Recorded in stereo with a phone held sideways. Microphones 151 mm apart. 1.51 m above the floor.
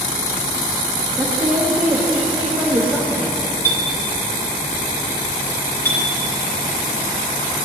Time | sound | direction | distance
1.2 | a woman speaking | 15° right (ahead or behind) | 1.3 m
3.6 | a clink | 15° left (ahead or behind) | 2.5 m